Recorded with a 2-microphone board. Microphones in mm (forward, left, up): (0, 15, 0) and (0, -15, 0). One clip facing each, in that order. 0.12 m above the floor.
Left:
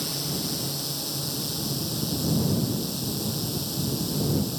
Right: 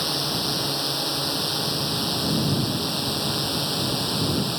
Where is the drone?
40° right (ahead or behind); by 4.6 s 45° right (ahead or behind).